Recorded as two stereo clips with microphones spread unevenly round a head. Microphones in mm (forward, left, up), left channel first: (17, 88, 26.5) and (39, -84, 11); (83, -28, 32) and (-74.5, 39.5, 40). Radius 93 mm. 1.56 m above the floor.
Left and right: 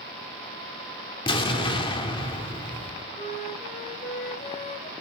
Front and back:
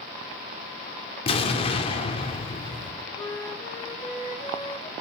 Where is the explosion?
35° left, 2.5 m.